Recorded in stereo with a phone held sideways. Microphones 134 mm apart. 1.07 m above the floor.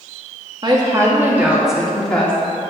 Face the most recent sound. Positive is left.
turn(degrees=10)  # may be behind; listen again after turning